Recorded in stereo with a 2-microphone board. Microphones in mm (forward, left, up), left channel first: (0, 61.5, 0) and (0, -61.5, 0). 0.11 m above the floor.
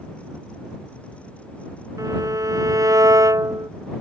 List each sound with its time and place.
2.0 s a violin: 25° right (ahead or behind)